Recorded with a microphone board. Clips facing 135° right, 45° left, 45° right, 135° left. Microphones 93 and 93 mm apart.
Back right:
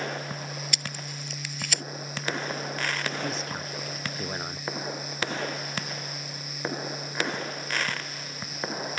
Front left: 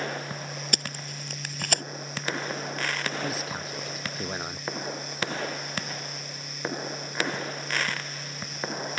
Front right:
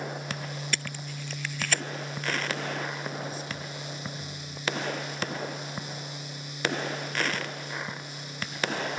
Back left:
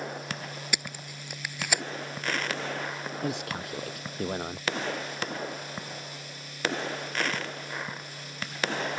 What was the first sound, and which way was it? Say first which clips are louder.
Tape being pulled: front left 2 dB, front right 1 dB; 60° left.